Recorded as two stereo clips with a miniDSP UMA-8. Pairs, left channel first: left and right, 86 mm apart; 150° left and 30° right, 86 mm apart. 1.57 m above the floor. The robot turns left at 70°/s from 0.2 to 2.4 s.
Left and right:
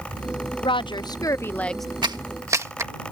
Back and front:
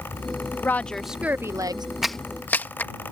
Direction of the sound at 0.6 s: 90° left.